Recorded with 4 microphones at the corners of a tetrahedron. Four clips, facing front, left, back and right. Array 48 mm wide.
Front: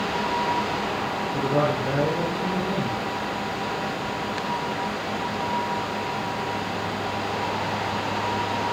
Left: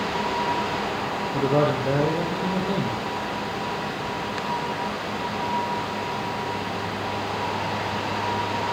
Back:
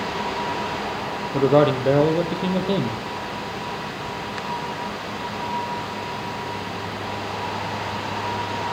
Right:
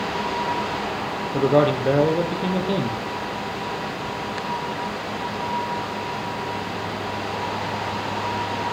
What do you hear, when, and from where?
1.3 s a man speaking: 150° right, 4 m